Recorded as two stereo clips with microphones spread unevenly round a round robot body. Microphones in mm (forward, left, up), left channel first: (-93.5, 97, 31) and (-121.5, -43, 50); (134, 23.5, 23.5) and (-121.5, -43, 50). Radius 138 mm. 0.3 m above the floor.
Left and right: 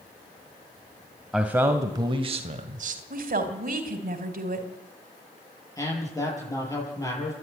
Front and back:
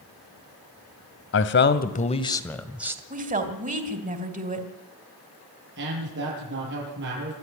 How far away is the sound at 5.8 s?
About 9 m.